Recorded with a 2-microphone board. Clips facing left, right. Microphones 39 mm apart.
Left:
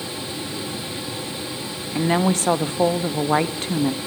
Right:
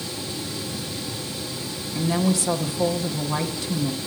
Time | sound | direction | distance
1.9 | a woman speaking | 45° left (ahead or behind) | 0.6 m